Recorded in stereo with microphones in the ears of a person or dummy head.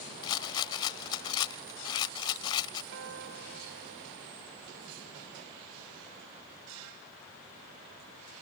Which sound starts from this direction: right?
A guitar, at 2.9 s.